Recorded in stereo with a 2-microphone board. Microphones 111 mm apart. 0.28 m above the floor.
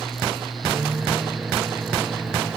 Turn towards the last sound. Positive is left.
turn(degrees=-10)  # may be behind; listen again after turning